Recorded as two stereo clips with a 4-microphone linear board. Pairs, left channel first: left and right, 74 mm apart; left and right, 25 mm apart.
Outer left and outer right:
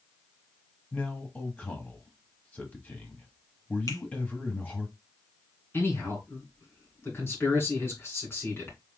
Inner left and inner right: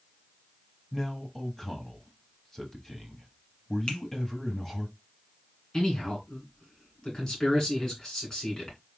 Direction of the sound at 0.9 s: 20° left (ahead or behind).